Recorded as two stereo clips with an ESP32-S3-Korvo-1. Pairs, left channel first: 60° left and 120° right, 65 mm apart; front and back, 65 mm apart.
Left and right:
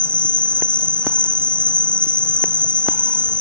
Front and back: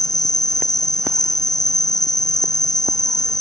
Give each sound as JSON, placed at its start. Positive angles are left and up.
{"t": 0.0, "sound": "an insect", "azimuth_deg": -15}